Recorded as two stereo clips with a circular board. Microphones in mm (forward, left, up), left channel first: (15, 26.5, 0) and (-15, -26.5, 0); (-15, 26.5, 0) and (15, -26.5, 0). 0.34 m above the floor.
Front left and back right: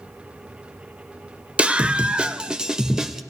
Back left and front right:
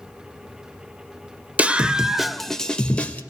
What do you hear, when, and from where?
1.6 s a scream: 80° right, 1.0 m; by 3.2 s 165° left, 1.1 m